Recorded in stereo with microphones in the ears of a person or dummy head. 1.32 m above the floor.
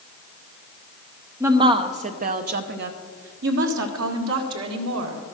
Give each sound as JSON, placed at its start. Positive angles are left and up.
{"t": 1.4, "sound": "a woman speaking", "side_deg": -15, "distance_m": 0.7}